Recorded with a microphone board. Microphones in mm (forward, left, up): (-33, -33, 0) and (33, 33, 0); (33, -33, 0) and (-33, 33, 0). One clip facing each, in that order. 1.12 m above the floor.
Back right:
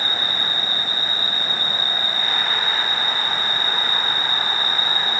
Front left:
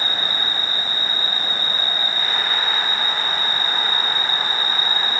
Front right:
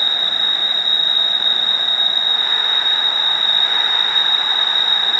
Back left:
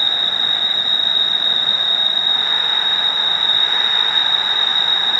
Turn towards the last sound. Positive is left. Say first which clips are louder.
# even, even
turn(degrees=-120)